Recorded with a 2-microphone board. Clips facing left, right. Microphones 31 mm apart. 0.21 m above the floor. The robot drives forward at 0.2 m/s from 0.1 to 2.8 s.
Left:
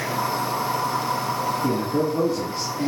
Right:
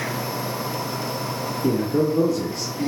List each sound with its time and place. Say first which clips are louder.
1.6 s a man speaking: right 5 dB; 30° left (ahead or behind), 2 m; by 2.9 s 25° left (ahead or behind), 2.5 m